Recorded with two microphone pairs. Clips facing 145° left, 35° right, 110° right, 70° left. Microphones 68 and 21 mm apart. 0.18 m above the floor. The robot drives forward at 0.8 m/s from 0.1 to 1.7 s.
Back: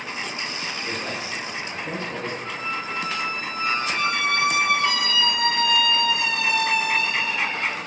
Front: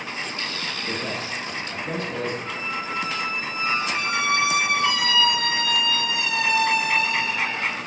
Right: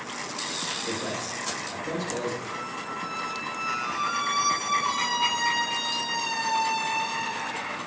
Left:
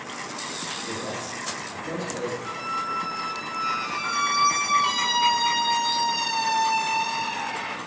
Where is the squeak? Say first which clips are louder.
Even, left 5 dB; 100° left, 1.5 m.